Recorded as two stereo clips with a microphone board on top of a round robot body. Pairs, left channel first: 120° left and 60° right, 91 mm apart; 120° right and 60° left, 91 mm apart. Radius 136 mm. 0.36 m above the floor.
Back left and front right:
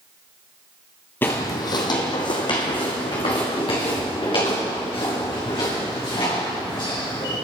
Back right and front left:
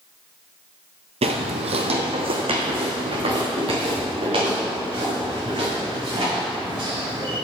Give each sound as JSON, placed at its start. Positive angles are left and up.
{"t": 1.2, "sound": "footsteps", "azimuth_deg": 50, "distance_m": 0.6}